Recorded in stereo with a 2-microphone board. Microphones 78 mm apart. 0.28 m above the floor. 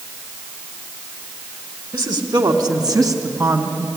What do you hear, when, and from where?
1.9 s a woman speaking: 65° right (ahead or behind), 3 m; by 3.9 s 30° right (ahead or behind), 3 m